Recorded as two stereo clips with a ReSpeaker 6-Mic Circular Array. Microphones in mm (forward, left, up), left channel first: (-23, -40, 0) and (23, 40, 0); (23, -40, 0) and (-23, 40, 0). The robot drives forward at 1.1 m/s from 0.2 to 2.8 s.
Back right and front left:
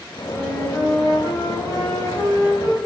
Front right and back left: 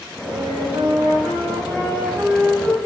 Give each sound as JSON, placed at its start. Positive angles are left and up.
{"t": 0.2, "sound": "a flute", "azimuth_deg": 150, "distance_m": 3.0}